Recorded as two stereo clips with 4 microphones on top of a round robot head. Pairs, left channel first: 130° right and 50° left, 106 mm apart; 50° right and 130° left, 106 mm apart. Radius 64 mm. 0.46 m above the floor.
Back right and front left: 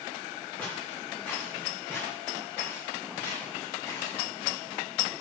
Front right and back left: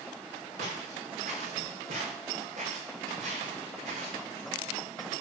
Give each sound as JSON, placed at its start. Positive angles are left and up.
{"t": 0.6, "sound": "footsteps", "azimuth_deg": 150, "distance_m": 6.0}